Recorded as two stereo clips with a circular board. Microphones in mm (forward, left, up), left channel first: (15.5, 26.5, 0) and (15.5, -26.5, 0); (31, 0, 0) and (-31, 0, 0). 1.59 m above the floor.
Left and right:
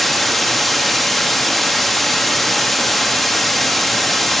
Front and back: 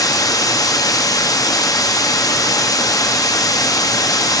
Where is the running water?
5° left, 0.8 m.